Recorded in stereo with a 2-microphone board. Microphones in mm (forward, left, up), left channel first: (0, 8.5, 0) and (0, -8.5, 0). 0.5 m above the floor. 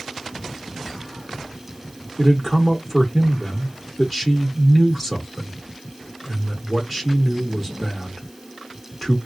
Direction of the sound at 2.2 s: 5° right (ahead or behind).